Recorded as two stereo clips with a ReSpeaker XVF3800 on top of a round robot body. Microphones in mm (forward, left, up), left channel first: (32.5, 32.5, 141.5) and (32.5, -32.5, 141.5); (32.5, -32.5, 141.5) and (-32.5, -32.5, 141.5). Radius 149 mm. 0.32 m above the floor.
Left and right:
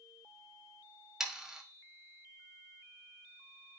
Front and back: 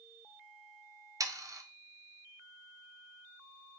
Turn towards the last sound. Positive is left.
turn(degrees=-170)